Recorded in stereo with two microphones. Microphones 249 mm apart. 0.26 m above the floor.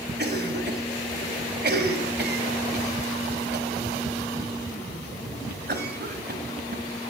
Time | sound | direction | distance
0.2 | a cough | 40° right (ahead or behind) | 1.6 m